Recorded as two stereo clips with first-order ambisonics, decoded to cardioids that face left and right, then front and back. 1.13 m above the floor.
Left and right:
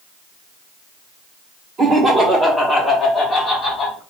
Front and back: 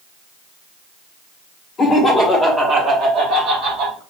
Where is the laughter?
55° right, 0.8 m; by 4.0 s 160° left, 1.3 m.